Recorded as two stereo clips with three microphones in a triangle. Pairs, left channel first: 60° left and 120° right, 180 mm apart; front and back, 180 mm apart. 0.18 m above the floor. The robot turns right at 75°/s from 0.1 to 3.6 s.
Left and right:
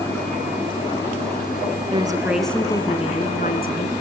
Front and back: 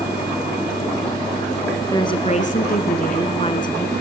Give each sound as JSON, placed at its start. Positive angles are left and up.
{"t": 1.9, "sound": "a woman speaking", "azimuth_deg": -70, "distance_m": 2.0}